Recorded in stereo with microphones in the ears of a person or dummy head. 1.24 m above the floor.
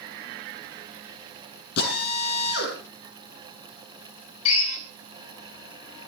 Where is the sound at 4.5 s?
85° left, 5.5 m.